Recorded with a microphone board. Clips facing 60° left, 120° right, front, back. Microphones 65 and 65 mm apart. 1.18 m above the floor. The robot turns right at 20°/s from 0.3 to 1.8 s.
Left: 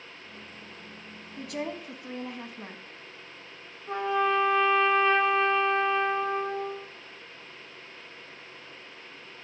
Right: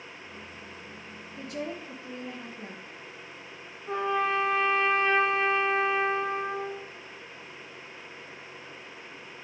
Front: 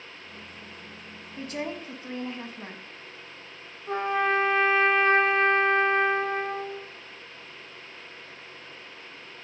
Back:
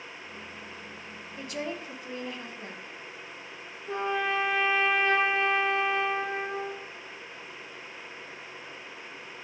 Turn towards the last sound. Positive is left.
turn(degrees=-30)